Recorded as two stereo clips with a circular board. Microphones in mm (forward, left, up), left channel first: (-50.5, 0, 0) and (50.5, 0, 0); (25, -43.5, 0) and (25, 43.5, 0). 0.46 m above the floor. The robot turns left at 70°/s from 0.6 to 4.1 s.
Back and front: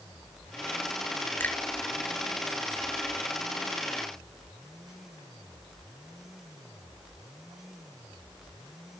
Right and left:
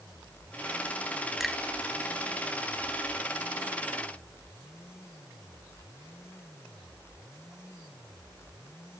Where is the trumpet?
No trumpet in this recording.